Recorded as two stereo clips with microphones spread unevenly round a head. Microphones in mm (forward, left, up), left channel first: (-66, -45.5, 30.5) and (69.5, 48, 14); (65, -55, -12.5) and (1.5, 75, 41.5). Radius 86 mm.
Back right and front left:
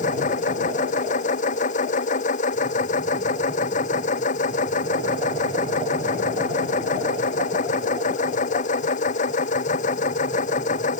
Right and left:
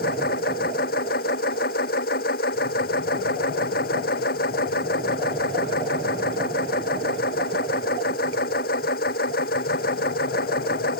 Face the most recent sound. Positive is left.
turn(degrees=-100)